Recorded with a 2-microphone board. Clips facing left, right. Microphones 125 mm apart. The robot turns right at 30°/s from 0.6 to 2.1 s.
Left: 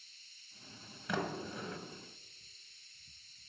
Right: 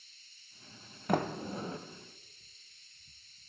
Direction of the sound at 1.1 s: 45° right (ahead or behind).